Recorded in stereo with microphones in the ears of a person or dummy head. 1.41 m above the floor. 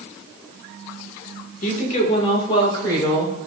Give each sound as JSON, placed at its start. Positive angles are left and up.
{"t": 1.6, "sound": "a woman speaking", "side_deg": 45, "distance_m": 1.2}